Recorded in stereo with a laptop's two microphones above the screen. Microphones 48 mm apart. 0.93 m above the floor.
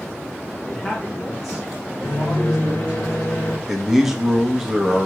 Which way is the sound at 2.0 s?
75° left (ahead or behind).